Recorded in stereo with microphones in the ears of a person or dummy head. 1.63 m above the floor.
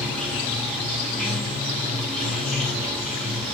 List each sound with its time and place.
0.0 s running water: centre (ahead or behind), 2.5 m